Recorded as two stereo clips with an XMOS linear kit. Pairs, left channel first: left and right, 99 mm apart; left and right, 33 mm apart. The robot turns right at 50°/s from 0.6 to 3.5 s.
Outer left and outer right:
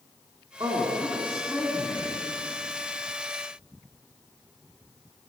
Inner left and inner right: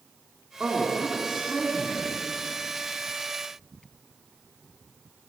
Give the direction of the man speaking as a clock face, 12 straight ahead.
2 o'clock.